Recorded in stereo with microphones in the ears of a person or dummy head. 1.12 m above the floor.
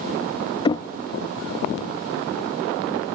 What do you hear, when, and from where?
0.7 s knocking: 30° left (ahead or behind)